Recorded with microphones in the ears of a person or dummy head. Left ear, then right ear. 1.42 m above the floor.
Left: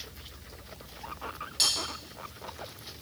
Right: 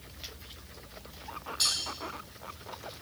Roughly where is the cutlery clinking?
Left.